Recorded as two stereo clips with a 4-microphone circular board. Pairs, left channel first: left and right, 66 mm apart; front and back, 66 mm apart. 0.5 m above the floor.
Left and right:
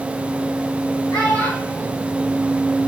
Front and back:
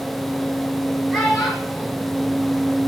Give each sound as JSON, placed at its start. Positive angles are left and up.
{"t": 1.1, "sound": "a child speaking", "azimuth_deg": 85, "distance_m": 3.5}